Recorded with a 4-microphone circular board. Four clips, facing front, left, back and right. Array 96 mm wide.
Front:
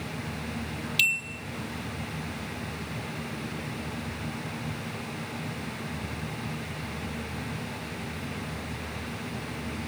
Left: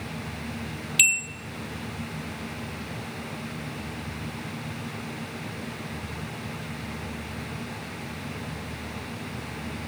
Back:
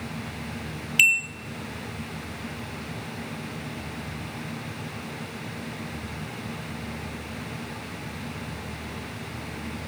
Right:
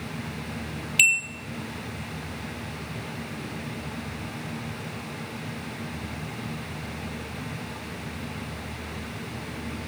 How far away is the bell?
About 0.8 m.